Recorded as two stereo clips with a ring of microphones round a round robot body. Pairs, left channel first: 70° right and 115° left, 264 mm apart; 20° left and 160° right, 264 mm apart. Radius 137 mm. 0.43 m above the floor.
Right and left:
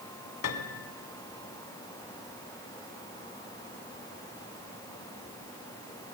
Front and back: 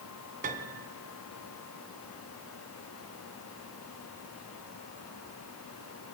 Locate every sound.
0.4 s a piano: 95° right, 1.4 m